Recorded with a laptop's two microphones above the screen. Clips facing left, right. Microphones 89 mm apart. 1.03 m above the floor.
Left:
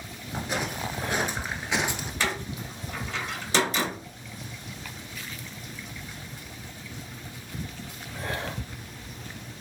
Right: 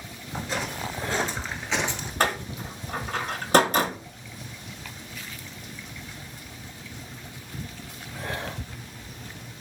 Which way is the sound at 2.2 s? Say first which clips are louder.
Right 5 dB; 55° right (ahead or behind).